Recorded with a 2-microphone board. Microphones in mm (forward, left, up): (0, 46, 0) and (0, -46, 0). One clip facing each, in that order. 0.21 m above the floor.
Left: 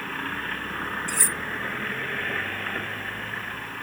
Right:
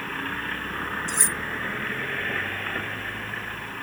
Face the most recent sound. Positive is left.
turn(degrees=-20)  # may be behind; listen again after turning